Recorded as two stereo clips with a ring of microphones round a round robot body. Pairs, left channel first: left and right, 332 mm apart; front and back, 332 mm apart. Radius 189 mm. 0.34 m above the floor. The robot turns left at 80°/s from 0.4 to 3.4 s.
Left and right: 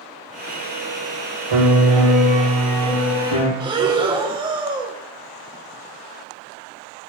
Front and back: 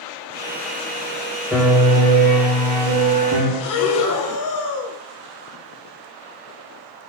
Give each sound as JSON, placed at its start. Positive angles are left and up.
{"t": 1.5, "sound": "a piano", "azimuth_deg": -90, "distance_m": 4.0}
{"t": 3.6, "sound": "breathing", "azimuth_deg": -15, "distance_m": 1.4}